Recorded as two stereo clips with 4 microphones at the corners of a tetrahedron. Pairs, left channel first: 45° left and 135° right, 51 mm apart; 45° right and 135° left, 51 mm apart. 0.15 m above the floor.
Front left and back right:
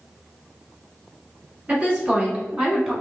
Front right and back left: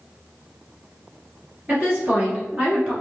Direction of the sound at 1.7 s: 175° left.